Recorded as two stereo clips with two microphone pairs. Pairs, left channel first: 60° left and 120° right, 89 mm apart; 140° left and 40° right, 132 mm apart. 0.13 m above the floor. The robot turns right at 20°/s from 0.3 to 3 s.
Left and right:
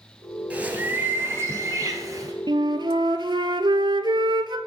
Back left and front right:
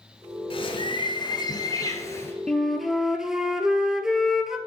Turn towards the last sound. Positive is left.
turn(degrees=-130)